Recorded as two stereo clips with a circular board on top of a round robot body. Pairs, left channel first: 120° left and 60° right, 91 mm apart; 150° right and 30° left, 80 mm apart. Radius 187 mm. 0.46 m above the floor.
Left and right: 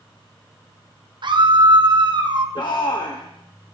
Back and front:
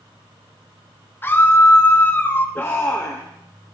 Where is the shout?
150° left, 2 m.